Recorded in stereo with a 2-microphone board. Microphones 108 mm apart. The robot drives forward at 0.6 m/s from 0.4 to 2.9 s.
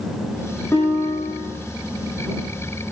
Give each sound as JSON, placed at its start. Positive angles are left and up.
{"t": 0.7, "sound": "a guitar", "side_deg": 20, "distance_m": 9.0}